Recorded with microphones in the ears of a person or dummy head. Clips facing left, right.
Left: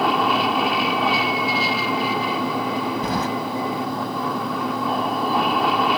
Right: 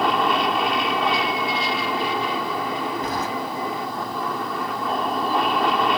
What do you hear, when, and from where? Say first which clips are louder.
0.0 s an aircraft: left 1 dB; 5° left (ahead or behind)
3.0 s keys jangling: left 3 dB; 70° left (ahead or behind)